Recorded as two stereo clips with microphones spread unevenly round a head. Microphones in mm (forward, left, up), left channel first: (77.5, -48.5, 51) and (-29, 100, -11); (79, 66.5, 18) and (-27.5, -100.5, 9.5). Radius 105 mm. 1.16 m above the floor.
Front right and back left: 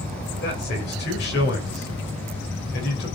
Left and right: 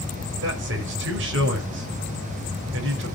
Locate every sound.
0.4 s a man speaking: 100° right, 5.5 m